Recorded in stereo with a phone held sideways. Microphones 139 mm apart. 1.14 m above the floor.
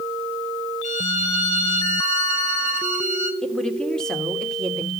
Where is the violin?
60° left (ahead or behind), 1.8 m.